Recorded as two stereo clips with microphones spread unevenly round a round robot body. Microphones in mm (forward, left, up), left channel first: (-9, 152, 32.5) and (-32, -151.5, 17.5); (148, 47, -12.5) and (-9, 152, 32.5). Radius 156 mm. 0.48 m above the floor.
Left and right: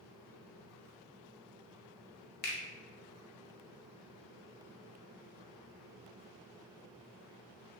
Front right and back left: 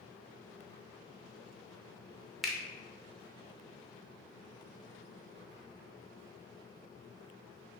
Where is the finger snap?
40° left, 0.6 m.